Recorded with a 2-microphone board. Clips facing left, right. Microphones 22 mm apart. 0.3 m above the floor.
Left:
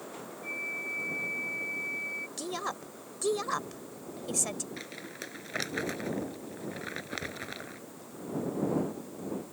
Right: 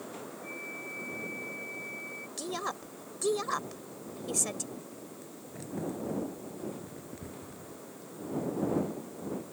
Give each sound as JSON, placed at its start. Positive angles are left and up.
{"t": 0.4, "sound": "a flute", "side_deg": 30}
{"t": 2.4, "sound": "a woman speaking", "side_deg": 5}
{"t": 4.8, "sound": "crumpling", "side_deg": 75}